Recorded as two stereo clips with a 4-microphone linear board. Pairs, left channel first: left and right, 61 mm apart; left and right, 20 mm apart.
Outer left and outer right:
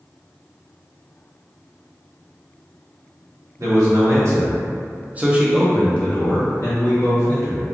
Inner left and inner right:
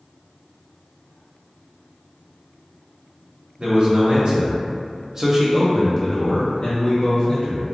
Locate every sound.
3.6 s a man speaking: 60° right (ahead or behind), 1.2 m; by 7.6 s 65° left (ahead or behind), 1.1 m